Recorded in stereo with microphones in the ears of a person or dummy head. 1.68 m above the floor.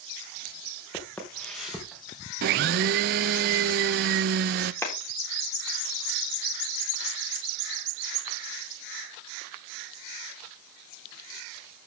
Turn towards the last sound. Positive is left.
turn(degrees=10)  # may be behind; listen again after turning